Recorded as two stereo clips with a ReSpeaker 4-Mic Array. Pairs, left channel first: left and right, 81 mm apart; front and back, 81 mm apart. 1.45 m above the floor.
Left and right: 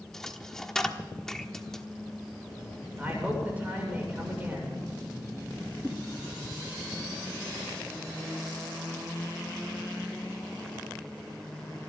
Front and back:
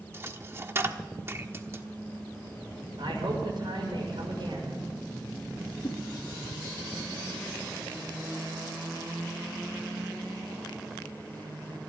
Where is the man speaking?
160° right, 6.5 m.